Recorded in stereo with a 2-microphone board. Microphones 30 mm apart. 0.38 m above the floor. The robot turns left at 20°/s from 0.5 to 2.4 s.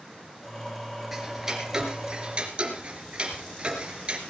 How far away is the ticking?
About 2.5 m.